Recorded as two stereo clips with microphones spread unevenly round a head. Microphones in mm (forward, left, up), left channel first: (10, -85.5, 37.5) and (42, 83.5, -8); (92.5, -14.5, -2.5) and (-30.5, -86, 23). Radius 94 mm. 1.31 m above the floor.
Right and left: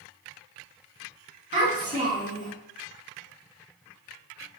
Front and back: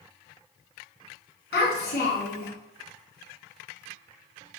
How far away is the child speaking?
About 1.9 m.